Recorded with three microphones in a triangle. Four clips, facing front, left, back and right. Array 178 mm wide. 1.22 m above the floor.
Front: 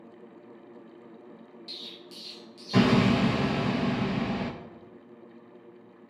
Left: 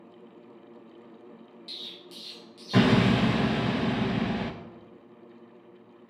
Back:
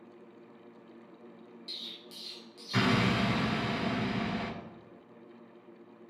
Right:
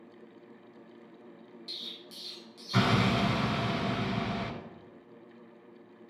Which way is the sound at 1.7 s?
50° left.